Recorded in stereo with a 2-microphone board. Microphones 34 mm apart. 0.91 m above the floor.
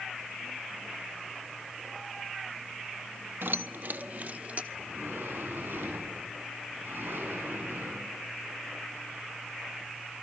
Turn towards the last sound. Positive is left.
turn(degrees=-75)  # may be behind; listen again after turning